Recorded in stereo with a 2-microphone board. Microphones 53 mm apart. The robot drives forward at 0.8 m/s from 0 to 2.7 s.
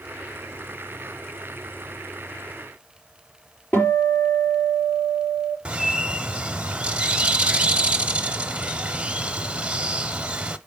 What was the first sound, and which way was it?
A guitar, 35° left (ahead or behind).